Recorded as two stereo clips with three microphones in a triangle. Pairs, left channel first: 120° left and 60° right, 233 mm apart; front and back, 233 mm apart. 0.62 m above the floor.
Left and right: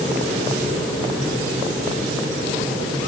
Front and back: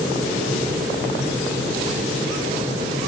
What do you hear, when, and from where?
Only background noise.